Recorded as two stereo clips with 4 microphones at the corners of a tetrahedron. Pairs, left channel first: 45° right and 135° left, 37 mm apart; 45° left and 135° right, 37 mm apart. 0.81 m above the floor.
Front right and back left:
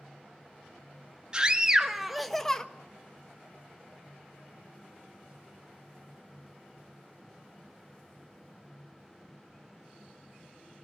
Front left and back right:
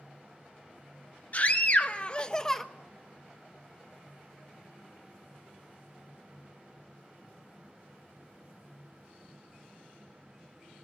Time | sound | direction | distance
1.3 | a scream | 75° left | 1.5 m